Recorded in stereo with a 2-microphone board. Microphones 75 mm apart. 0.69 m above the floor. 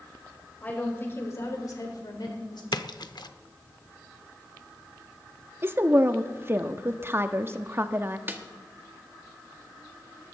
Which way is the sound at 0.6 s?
25° left (ahead or behind).